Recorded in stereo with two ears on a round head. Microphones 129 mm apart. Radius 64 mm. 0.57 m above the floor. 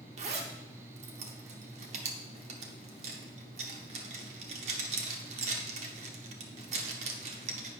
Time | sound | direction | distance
0.2 | a zipper | 50° right (ahead or behind) | 1.0 m